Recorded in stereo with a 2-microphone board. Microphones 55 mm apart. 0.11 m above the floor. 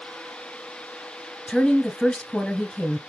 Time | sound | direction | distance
1.5 | a woman speaking | 15° left (ahead or behind) | 1.4 m